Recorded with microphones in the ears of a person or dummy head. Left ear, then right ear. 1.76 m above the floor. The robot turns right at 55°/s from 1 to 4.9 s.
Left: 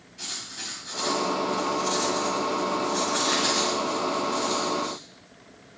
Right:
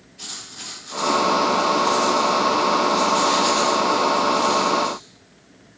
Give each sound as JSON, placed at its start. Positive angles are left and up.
{"t": 0.2, "sound": "writing", "azimuth_deg": 20, "distance_m": 3.0}